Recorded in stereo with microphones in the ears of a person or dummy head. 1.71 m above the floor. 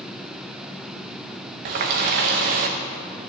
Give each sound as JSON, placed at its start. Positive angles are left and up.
{"t": 1.6, "sound": "a running tap", "side_deg": -45, "distance_m": 1.0}